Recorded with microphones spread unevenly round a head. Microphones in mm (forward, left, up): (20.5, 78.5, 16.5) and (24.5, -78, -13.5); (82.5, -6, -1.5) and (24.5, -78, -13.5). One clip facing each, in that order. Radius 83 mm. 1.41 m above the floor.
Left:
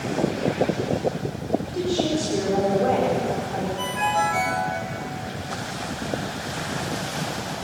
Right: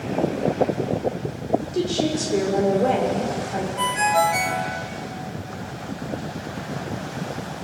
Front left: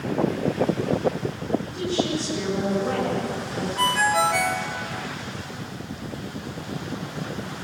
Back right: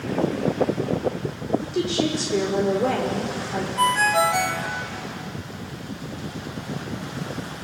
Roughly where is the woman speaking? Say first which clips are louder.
Right 1 dB, back right 2 dB; behind right.